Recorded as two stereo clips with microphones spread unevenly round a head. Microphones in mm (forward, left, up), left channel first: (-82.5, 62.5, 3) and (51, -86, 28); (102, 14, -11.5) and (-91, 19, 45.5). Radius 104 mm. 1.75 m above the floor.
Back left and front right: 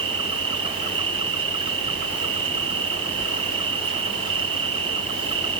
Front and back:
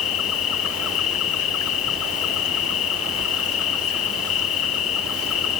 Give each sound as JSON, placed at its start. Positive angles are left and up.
{"t": 0.0, "sound": "an insect", "azimuth_deg": 15}